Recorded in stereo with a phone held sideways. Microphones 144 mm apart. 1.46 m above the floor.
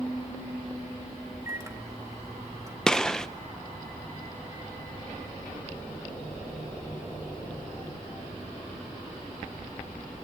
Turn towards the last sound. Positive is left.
turn(degrees=5)  # may be behind; listen again after turning